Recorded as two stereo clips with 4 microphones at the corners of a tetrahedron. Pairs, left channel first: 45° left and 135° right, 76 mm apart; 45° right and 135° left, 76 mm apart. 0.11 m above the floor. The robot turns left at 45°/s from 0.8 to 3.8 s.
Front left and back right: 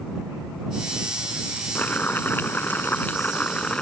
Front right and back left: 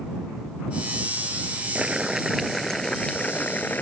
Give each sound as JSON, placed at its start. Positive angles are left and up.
{"t": 1.8, "sound": "boiling", "azimuth_deg": 75}